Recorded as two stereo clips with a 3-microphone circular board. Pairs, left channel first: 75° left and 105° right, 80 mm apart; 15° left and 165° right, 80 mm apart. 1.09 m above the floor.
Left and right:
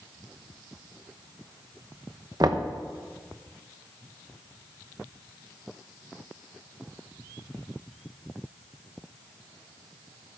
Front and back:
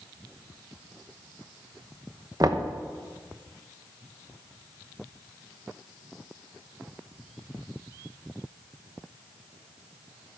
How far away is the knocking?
About 0.9 m.